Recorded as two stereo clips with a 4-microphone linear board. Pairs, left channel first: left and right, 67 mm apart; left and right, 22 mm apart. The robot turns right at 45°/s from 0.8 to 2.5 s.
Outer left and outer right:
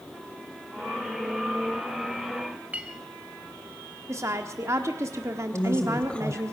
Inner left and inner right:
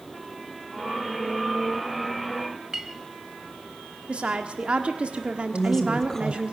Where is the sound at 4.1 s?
45° right (ahead or behind), 1.4 m.